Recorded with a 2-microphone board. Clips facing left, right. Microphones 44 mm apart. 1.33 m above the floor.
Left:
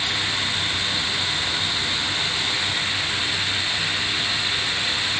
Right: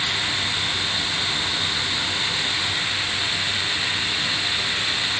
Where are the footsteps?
I don't hear footsteps.